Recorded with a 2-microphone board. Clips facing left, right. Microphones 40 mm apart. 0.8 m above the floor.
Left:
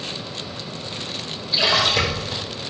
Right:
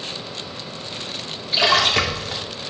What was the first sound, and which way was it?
A splash, 60° right (ahead or behind).